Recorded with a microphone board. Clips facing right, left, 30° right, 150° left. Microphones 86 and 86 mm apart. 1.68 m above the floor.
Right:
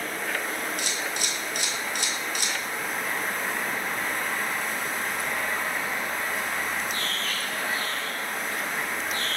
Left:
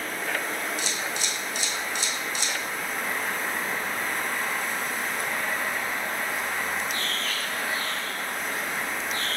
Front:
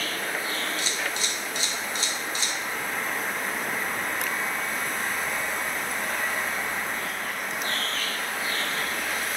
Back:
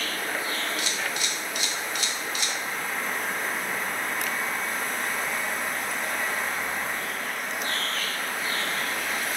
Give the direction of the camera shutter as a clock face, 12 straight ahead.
3 o'clock.